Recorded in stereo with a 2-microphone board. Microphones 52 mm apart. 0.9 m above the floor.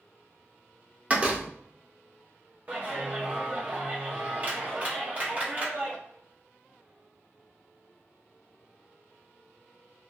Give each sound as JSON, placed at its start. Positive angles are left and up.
{"t": 1.1, "sound": "a door slam", "side_deg": -25, "distance_m": 0.6}
{"t": 2.7, "sound": "a clap", "side_deg": -30, "distance_m": 0.9}